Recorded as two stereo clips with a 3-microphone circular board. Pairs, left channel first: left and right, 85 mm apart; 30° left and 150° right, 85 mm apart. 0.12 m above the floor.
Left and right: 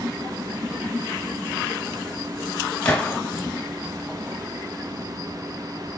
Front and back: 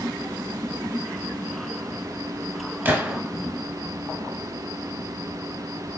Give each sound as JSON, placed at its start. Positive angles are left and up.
{"t": 2.9, "sound": "a gunshot", "azimuth_deg": 160, "distance_m": 1.0}